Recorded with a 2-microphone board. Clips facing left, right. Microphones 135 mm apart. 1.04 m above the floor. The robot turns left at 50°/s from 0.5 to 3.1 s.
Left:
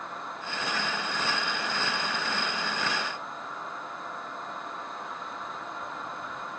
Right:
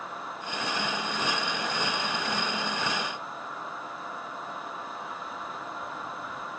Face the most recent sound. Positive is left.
No sound to turn to.